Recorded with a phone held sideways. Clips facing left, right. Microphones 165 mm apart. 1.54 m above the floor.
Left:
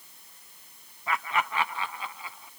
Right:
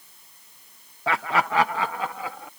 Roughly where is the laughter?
Right.